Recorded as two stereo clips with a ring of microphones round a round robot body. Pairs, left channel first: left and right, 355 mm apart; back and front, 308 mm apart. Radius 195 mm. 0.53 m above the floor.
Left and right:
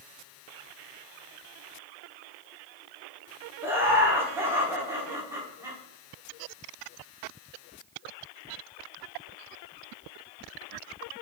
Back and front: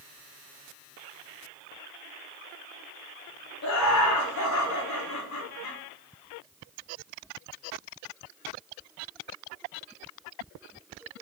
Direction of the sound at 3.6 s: 175° right.